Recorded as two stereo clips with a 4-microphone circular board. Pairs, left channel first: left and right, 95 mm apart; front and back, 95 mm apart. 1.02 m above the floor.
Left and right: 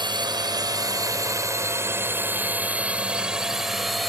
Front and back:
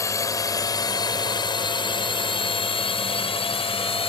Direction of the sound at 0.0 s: 55° right.